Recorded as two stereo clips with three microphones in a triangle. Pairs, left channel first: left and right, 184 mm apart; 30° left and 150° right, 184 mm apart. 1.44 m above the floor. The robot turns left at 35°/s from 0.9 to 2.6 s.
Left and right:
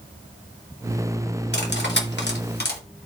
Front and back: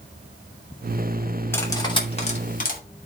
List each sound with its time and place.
1.5 s cutlery clinking: 105° left, 2.5 m; by 2.8 s 70° left, 2.5 m